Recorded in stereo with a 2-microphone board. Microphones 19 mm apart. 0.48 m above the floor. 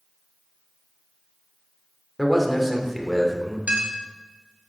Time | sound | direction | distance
2.2 | a man speaking | 5° left (ahead or behind) | 1.3 m
3.7 | a clink | 55° right (ahead or behind) | 1.7 m